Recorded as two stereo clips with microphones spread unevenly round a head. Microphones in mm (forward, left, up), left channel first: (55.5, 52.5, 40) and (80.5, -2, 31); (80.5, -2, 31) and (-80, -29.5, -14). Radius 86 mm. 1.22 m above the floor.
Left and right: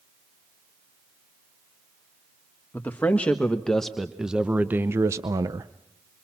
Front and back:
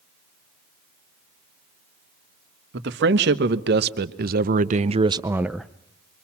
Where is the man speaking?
170° right, 1.5 m; by 5.7 s 80° right, 0.6 m.